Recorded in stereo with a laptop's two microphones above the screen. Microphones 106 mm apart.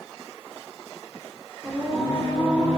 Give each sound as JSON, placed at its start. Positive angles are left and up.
{"t": 1.6, "sound": "singing", "side_deg": 10, "distance_m": 0.7}